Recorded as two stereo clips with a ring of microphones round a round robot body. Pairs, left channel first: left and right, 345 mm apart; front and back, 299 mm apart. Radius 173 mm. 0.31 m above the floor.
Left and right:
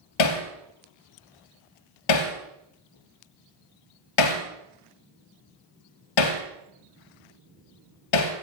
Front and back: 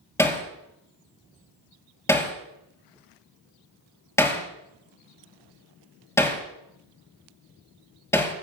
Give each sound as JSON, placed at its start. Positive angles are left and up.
{"t": 0.2, "sound": "hammering", "azimuth_deg": 80, "distance_m": 4.0}